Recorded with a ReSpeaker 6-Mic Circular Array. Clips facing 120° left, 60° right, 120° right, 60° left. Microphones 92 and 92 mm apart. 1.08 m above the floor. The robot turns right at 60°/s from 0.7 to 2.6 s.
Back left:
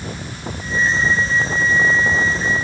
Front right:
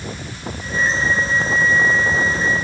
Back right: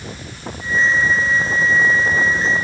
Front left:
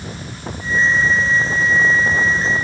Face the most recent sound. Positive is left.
No sound to turn to.